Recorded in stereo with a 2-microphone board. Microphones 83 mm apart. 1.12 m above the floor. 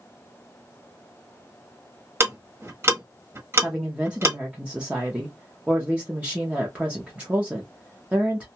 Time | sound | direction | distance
2.2 | ticking | 30° right (ahead or behind) | 1.0 m
3.6 | a woman speaking | 15° right (ahead or behind) | 0.7 m